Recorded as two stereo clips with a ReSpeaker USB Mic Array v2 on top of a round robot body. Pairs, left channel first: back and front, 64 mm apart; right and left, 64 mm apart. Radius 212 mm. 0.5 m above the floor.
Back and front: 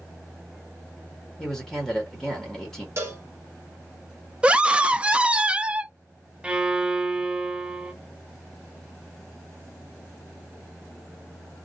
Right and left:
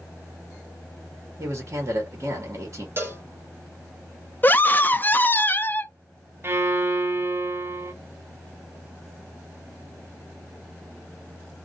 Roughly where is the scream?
Ahead right.